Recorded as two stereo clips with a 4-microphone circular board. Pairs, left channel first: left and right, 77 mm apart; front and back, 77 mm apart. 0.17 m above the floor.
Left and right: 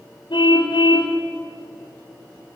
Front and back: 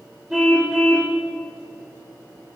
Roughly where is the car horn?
Left.